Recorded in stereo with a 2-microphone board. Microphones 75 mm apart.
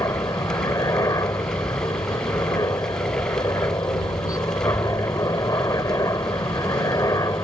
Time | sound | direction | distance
0.0 | a helicopter | 60° left (ahead or behind) | ?